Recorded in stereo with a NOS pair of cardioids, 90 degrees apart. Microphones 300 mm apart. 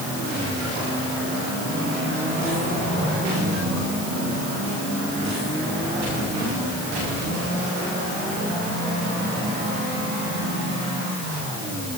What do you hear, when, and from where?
Only background noise.